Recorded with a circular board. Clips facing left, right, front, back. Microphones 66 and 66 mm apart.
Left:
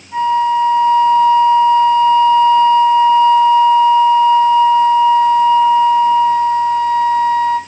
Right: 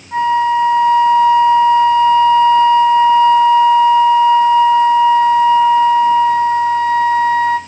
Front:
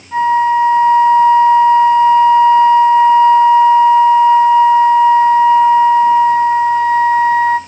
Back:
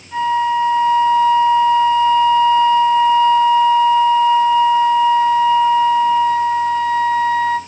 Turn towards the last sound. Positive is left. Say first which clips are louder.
# even, front 5 dB
turn(degrees=-70)